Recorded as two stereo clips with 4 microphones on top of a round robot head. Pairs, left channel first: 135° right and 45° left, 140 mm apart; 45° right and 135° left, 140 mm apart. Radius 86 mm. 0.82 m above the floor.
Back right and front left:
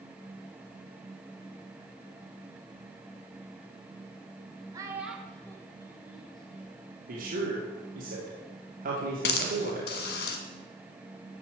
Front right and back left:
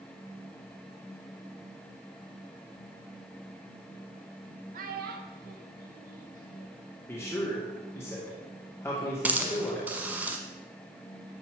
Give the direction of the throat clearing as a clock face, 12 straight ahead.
No throat clearing in this recording.